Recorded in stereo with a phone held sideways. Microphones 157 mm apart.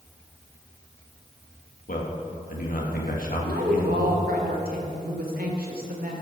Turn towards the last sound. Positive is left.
turn(degrees=-75)  # may be behind; listen again after turning